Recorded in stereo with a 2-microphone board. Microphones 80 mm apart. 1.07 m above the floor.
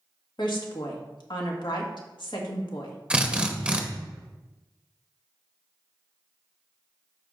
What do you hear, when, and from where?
0.4 s a woman speaking: 70° left (ahead or behind), 1.7 m
3.1 s a drill: 10° right (ahead or behind), 0.8 m